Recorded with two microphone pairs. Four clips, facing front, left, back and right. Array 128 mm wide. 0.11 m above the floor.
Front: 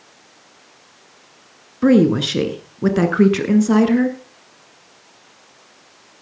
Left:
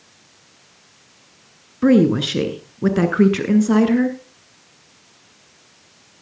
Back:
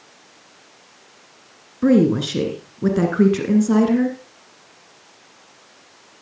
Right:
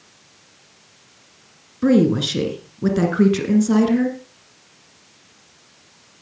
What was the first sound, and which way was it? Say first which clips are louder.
A woman speaking: left 2 dB, front 2 dB; 30° left.